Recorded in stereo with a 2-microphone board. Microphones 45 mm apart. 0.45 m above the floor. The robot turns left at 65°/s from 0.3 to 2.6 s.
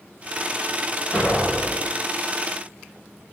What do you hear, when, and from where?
1.1 s an explosion: 155° left, 1.3 m; by 1.9 s 105° left, 1.3 m